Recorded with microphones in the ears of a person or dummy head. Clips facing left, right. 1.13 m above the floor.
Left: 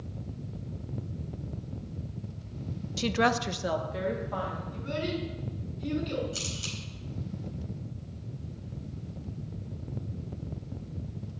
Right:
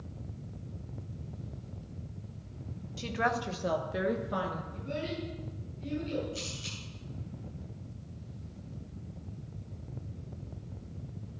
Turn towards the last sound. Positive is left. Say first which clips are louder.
# left 2 dB
turn(degrees=70)  # may be behind; listen again after turning